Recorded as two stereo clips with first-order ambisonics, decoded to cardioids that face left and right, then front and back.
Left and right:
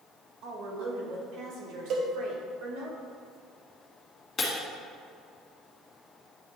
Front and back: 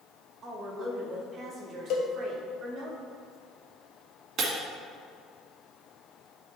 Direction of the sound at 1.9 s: 40° right.